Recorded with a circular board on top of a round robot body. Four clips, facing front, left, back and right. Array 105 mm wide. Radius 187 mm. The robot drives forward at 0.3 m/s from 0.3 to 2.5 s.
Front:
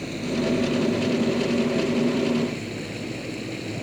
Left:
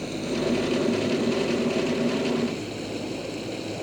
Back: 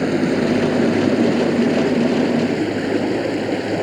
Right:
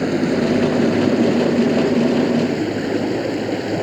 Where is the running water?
140° right.